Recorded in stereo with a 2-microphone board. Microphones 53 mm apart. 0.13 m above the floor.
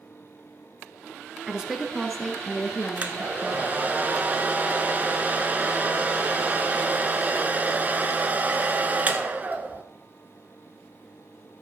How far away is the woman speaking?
About 1.6 m.